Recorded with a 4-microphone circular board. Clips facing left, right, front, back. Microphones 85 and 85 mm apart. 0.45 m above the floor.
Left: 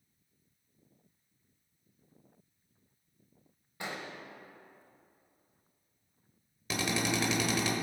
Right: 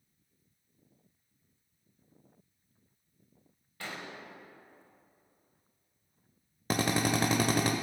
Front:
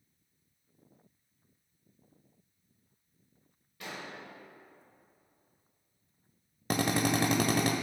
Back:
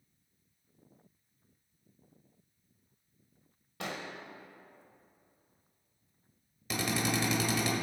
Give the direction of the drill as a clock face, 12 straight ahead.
1 o'clock.